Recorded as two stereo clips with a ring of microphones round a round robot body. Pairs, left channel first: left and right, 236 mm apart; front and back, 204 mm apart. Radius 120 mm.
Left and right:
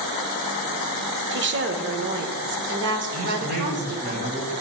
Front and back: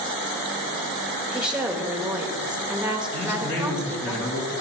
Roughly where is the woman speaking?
Right.